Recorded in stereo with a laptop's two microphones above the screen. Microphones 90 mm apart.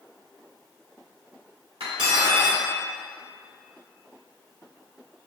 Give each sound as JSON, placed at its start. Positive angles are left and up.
{"t": 1.8, "sound": "cutlery clinking", "side_deg": -80, "distance_m": 1.6}